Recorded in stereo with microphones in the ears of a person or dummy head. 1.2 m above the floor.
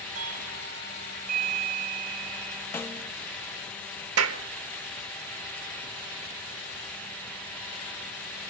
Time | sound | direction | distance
0.1 | a doorbell | 40° right (ahead or behind) | 2.5 m
2.7 | a snare drum | 10° left (ahead or behind) | 0.6 m
4.2 | a clap | 70° right (ahead or behind) | 1.3 m